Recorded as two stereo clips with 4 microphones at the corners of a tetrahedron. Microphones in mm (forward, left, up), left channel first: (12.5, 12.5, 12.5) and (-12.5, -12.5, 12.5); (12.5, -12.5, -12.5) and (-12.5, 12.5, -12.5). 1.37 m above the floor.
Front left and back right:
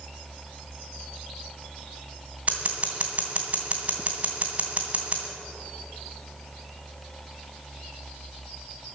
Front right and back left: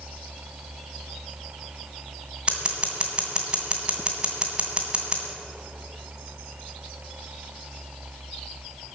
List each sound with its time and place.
2.5 s scissors: 175° right, 2.5 m